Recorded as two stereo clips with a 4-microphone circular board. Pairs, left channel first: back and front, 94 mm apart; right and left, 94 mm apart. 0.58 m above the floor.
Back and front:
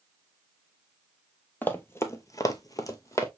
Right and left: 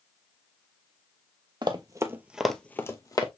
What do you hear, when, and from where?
1.6 s running footsteps: 110° left, 0.9 m; by 3.3 s 130° right, 0.9 m